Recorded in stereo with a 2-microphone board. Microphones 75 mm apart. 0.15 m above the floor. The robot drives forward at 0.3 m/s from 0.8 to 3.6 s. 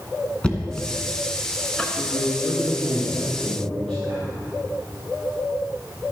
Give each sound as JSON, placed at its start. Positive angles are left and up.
{"t": 0.4, "sound": "knocking", "side_deg": 15, "distance_m": 1.0}
{"t": 2.0, "sound": "a man speaking", "side_deg": 10, "distance_m": 4.0}